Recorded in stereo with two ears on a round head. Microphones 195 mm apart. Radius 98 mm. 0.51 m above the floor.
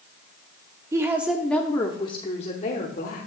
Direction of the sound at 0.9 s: 15° right (ahead or behind).